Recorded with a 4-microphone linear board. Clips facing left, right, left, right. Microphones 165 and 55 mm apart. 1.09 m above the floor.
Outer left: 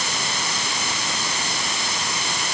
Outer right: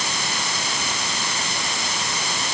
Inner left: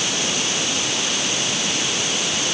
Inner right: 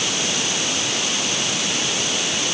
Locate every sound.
Only background noise.